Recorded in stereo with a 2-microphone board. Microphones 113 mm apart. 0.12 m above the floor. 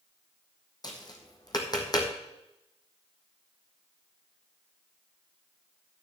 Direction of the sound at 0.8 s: 35° left (ahead or behind).